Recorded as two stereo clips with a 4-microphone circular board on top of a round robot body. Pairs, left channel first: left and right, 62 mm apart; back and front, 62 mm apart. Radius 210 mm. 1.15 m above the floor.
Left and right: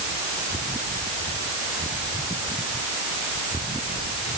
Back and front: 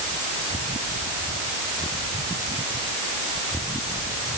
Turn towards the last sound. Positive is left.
No sound to turn to.